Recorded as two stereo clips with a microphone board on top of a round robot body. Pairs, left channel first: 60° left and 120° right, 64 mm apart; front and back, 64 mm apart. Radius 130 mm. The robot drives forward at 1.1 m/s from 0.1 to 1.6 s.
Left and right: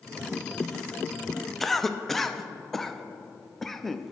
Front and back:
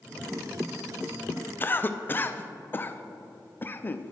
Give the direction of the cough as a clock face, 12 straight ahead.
1 o'clock.